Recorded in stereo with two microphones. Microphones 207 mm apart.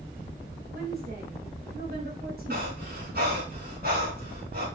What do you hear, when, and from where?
0.7 s a woman speaking: 50° right (ahead or behind), 3.5 m
2.5 s breathing: 50° right (ahead or behind), 4.5 m